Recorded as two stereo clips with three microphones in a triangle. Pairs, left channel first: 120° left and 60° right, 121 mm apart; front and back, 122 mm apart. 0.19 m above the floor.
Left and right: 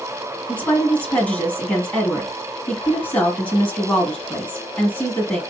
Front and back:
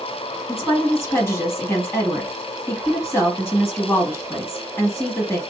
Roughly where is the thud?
I don't hear a thud.